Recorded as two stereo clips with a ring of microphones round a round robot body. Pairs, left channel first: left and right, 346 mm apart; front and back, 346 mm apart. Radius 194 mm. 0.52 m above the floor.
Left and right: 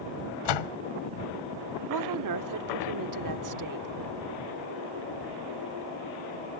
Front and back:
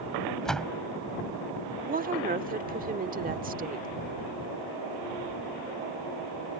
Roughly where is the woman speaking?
Behind right.